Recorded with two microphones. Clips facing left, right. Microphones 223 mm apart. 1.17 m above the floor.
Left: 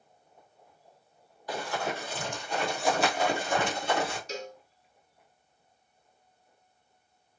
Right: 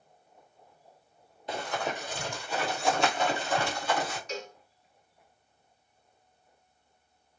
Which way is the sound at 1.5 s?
25° right (ahead or behind).